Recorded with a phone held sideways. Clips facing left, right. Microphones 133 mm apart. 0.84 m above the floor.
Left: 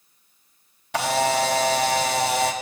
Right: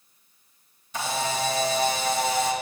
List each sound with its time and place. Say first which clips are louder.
0.9 s a camera shutter: left 7 dB; 75° left (ahead or behind), 0.5 m